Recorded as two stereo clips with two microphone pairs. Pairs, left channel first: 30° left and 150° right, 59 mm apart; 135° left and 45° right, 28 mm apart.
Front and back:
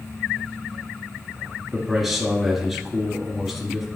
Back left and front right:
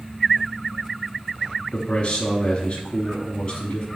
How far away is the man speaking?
About 1.3 m.